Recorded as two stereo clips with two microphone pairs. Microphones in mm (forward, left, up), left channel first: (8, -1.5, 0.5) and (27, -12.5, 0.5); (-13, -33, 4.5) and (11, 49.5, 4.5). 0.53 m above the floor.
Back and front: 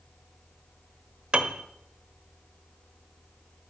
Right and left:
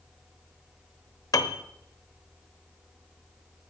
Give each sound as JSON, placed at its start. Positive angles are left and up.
{"t": 1.3, "sound": "a piano", "azimuth_deg": -60, "distance_m": 1.0}